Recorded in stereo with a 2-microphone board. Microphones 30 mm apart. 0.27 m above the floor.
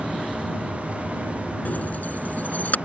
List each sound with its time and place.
0.0 s an aircraft: 5° right (ahead or behind)
1.6 s keys jangling: 70° left (ahead or behind)